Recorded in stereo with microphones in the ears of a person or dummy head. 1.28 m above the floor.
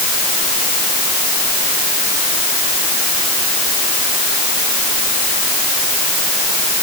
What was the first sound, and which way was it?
Only background noise.